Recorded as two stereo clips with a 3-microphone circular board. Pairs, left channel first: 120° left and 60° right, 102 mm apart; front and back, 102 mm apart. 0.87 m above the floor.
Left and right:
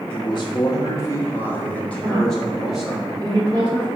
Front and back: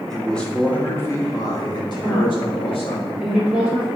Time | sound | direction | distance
0.1 | a man speaking | 85° left | 1.7 m
2.0 | a woman speaking | 95° right | 1.6 m